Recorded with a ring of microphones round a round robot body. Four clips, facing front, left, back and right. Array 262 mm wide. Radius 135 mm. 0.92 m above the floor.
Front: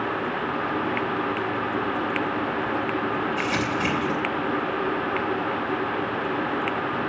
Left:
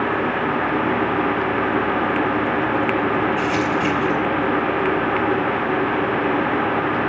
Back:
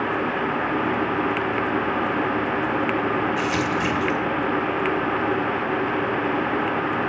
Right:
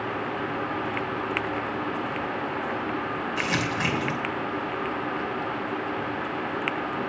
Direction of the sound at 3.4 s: 95° right.